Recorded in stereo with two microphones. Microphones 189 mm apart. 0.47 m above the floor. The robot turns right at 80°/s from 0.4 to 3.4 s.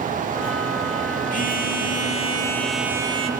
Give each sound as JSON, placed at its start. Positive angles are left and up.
{"t": 1.3, "sound": "a phone buzzing", "azimuth_deg": 65, "distance_m": 1.2}